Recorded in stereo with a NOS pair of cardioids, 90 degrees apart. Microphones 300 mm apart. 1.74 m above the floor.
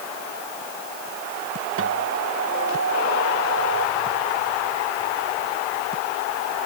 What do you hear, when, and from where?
1.8 s a guitar: 50° right